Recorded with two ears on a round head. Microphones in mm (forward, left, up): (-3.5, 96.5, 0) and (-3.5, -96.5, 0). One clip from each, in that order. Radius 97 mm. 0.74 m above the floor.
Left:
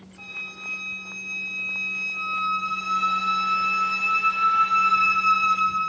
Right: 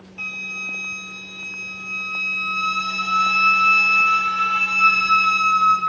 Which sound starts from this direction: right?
A flute, at 0.2 s.